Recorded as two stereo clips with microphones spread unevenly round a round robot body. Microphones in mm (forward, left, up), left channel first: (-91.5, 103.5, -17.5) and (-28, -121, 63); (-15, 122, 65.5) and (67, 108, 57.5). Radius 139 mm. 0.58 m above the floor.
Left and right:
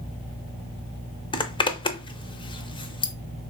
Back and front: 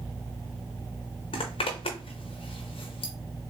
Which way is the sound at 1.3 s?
Straight behind.